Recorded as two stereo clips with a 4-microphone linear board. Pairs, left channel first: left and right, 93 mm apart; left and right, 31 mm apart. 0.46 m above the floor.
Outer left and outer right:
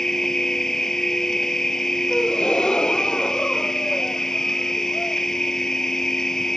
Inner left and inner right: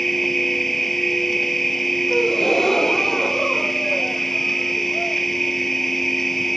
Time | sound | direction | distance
0.0 | an insect | 5° left (ahead or behind) | ?
2.1 | a gasp | 10° left (ahead or behind) | ?